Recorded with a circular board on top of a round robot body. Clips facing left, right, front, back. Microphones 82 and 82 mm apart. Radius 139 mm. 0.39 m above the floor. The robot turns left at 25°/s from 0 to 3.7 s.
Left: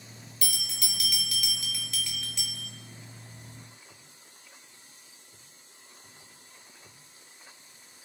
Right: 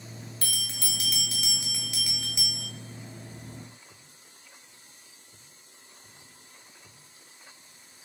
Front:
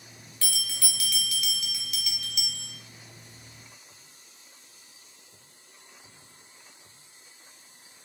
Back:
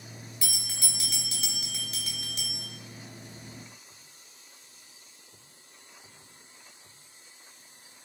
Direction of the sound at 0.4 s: 115° right.